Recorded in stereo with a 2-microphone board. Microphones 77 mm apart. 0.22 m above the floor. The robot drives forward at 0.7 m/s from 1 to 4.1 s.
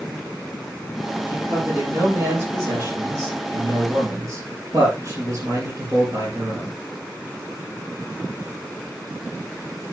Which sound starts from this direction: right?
A man speaking, at 1.3 s.